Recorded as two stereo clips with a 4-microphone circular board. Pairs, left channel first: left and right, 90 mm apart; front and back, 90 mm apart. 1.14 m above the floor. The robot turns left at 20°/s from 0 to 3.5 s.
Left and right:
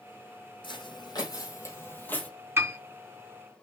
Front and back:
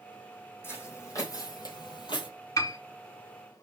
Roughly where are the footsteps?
Ahead left.